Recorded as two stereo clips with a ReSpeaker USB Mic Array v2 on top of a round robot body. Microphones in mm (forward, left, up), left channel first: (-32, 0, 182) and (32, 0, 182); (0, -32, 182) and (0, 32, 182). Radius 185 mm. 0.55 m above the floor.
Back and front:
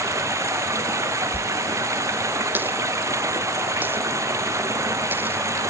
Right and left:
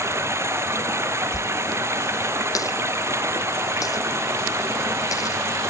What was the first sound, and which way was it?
Running water, 40° left.